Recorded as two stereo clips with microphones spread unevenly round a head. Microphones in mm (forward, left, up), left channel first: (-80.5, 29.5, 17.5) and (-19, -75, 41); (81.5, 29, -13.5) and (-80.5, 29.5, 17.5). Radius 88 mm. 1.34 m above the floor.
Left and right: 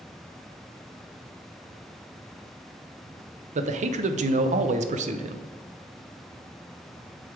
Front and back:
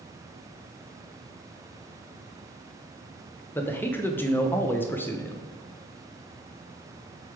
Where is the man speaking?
80° right, 0.6 m.